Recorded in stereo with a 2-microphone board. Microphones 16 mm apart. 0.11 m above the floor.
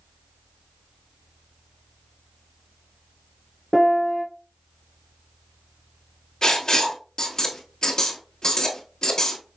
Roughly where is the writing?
Left.